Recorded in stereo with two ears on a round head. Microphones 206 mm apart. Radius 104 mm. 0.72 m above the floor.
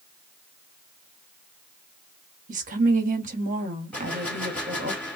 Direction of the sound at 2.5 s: 35° right (ahead or behind).